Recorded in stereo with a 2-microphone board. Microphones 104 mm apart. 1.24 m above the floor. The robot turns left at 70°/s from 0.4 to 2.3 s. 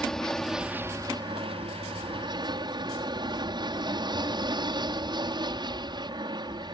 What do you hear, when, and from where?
0.0 s an aircraft: 5° left; by 6.7 s 130° right